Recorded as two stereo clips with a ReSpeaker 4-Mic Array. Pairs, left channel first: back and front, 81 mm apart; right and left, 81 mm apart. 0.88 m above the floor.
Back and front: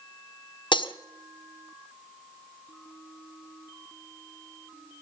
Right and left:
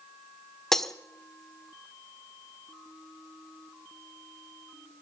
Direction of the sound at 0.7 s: 175° right.